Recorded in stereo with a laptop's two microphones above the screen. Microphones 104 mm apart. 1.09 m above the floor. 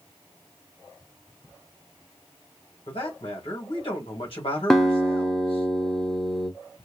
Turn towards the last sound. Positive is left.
turn(degrees=5)  # may be behind; listen again after turning